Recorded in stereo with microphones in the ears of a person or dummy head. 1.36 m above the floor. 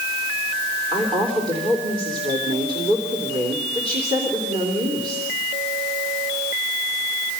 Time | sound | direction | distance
0.9 | a woman speaking | 25° right (ahead or behind) | 3.5 m